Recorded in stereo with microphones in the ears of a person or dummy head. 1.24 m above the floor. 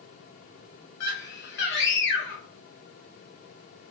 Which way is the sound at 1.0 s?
70° left (ahead or behind).